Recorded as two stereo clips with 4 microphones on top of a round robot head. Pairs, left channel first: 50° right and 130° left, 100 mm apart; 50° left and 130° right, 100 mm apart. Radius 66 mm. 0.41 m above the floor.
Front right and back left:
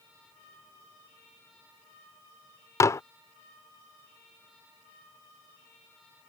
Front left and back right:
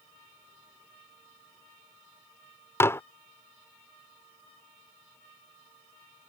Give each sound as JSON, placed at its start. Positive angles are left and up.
{"t": 2.8, "sound": "dishes clattering", "azimuth_deg": -5}